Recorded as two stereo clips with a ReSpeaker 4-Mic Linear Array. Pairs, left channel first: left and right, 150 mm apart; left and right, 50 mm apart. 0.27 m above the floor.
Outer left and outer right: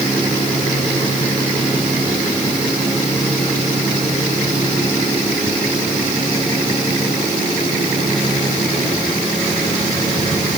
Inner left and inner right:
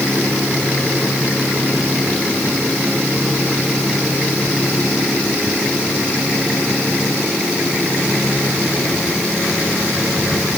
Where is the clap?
No clap in this recording.